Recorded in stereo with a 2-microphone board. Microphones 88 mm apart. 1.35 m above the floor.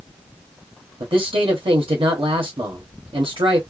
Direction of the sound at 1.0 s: 80° right.